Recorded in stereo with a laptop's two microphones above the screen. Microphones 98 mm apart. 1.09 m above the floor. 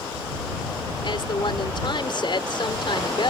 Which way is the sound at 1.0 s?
55° left (ahead or behind).